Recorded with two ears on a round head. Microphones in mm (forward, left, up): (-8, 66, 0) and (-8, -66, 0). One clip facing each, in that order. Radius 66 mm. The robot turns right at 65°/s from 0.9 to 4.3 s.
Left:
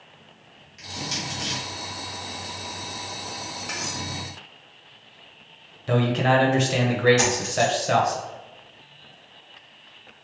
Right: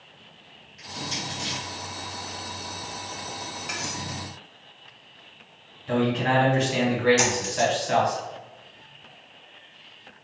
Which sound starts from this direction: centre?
Cutlery clinking, at 3.7 s.